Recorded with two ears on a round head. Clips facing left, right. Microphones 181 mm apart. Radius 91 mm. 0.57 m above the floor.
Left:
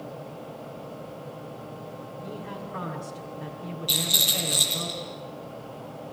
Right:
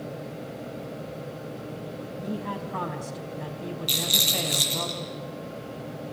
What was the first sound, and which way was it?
A man speaking, 65° right (ahead or behind).